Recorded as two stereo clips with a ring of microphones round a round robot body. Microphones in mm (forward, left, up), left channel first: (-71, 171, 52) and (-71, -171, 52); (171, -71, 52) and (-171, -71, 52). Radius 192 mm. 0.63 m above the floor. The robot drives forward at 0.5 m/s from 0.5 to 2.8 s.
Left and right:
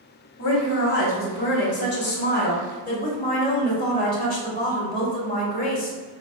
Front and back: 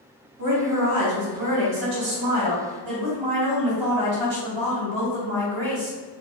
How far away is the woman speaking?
About 1.5 m.